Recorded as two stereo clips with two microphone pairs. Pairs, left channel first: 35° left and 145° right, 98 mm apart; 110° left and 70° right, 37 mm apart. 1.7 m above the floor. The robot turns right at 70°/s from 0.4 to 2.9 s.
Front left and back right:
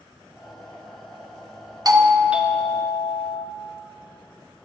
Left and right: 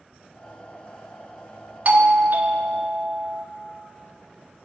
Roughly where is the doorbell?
Right.